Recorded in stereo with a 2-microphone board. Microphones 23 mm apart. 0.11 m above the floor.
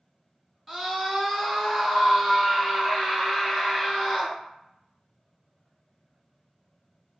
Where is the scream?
10° right (ahead or behind), 1.7 m; by 4.4 s 30° left (ahead or behind), 2 m.